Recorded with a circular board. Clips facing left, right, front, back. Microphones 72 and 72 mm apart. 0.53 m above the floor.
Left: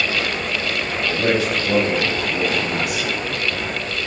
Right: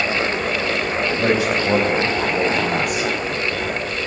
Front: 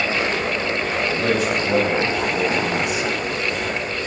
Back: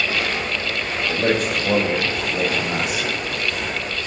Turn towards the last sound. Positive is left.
turn(degrees=-130)